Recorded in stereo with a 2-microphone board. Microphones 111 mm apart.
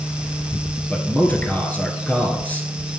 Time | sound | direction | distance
0.9 | a man speaking | 15° left (ahead or behind) | 1.2 m